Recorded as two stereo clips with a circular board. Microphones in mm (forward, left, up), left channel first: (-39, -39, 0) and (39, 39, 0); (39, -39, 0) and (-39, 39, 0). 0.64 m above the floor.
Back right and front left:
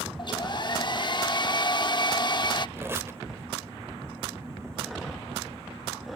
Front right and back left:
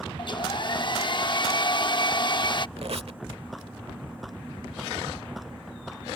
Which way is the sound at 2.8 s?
110° left.